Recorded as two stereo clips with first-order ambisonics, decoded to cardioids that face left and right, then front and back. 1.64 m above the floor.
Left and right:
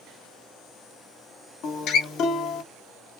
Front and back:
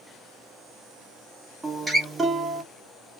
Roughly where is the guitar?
Left.